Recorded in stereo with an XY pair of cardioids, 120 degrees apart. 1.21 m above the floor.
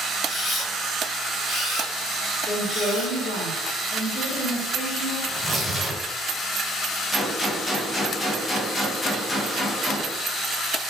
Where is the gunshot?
20° left, 0.6 m.